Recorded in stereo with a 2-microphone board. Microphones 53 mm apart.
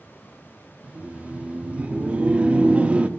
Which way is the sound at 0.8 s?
25° right (ahead or behind).